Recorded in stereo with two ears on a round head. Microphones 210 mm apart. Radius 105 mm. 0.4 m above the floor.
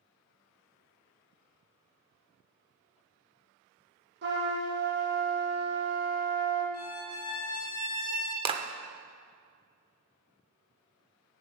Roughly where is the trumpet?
Right.